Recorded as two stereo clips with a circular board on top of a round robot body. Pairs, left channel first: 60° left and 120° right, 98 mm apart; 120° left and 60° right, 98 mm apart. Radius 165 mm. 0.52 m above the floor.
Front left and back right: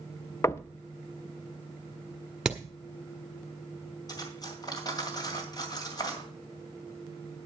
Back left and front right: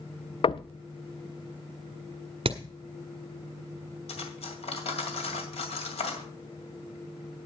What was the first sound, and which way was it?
Knocking, 115° left.